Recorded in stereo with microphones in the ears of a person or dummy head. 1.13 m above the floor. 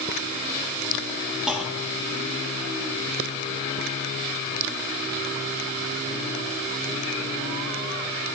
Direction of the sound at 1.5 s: 5° right (ahead or behind).